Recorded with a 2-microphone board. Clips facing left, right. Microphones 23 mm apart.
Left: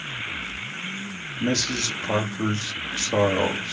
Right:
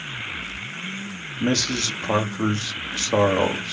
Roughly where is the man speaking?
Right.